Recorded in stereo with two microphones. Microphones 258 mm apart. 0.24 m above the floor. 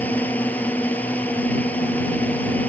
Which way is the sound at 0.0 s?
5° left (ahead or behind).